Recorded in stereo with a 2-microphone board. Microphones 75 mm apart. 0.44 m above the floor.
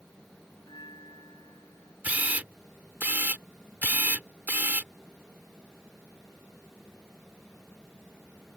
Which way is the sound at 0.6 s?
75° left (ahead or behind).